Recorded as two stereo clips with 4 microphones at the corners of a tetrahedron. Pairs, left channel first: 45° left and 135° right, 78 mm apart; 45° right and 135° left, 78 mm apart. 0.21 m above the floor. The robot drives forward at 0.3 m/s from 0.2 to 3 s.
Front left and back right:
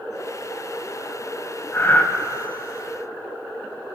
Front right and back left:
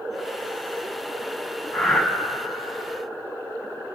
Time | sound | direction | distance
1.7 | breathing | 40° left | 1.3 m